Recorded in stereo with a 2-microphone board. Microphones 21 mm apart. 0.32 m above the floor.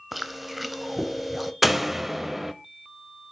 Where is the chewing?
Centre (ahead or behind), 0.8 m.